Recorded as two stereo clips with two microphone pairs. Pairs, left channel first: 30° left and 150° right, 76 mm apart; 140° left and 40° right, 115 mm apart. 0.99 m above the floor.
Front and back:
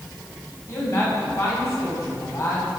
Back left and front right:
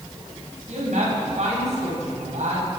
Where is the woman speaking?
25° right, 5.5 m.